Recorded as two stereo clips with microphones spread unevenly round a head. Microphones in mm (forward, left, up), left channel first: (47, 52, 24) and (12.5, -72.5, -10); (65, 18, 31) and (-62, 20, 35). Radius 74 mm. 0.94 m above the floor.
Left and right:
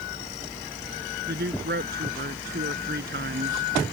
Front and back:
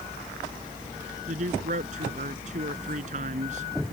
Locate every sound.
1.3 s a man speaking: 140° right